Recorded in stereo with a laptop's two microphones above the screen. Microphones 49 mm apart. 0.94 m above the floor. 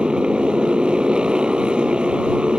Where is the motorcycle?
25° right (ahead or behind).